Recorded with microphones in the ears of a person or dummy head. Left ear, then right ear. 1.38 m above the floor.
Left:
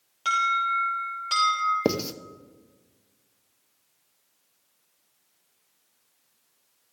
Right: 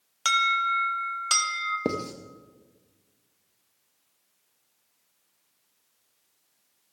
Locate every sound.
0.2 s an alarm: 55° right (ahead or behind), 1.6 m
1.9 s writing: 25° left (ahead or behind), 0.6 m